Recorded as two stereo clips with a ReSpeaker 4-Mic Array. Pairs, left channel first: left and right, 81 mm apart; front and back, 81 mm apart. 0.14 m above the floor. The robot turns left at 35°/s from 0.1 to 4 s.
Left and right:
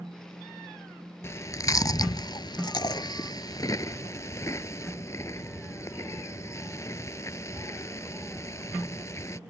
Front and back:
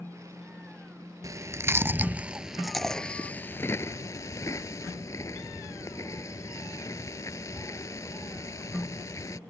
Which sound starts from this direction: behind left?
Chewing, at 1.2 s.